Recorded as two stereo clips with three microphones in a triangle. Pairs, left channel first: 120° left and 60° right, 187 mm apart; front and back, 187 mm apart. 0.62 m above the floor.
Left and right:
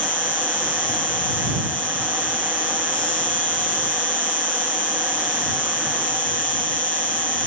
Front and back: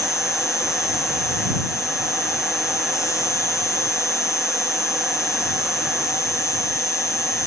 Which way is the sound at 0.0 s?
70° left.